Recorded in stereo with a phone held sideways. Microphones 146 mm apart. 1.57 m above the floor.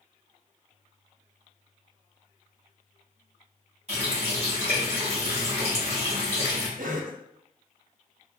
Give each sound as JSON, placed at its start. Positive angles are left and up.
{"t": 3.9, "sound": "a running tap", "side_deg": -45, "distance_m": 1.1}
{"t": 6.8, "sound": "a cough", "side_deg": -70, "distance_m": 0.6}